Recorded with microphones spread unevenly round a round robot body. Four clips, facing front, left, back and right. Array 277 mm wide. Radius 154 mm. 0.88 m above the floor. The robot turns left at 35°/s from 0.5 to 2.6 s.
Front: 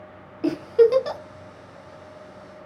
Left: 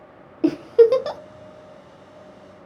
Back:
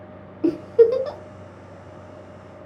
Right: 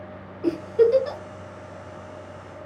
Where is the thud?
No thud in this recording.